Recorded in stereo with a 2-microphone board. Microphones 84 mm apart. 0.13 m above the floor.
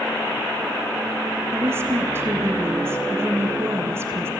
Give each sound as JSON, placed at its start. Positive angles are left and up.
{"t": 1.5, "sound": "a woman speaking", "side_deg": -30, "distance_m": 1.4}